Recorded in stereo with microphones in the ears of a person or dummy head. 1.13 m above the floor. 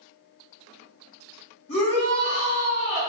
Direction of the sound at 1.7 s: 60° left (ahead or behind).